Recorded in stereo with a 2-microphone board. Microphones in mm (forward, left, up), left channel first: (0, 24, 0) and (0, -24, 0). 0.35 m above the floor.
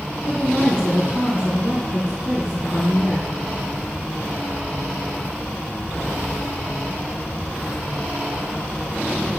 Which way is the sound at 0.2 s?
15° right (ahead or behind).